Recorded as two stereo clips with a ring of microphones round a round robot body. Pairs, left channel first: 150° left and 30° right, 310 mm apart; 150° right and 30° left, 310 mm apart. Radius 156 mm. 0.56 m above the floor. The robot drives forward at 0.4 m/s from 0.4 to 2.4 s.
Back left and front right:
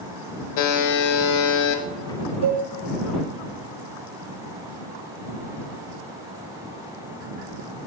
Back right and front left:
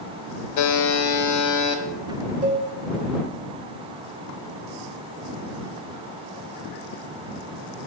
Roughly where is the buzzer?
Behind.